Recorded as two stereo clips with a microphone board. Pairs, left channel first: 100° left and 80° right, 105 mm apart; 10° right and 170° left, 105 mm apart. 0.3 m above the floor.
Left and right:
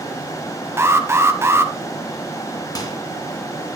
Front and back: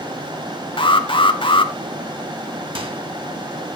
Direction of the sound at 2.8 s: 150° left.